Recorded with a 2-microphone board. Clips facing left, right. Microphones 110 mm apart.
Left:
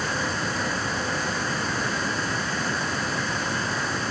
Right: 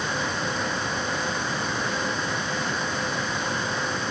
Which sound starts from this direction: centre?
Running water, at 0.0 s.